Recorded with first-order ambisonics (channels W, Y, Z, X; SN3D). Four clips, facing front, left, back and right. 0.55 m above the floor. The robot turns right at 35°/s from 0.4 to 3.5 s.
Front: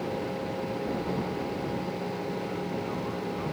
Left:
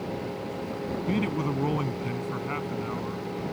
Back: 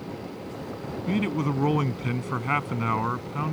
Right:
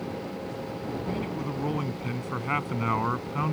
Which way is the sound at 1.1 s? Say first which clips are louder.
Left 7 dB, back 5 dB; 150° left.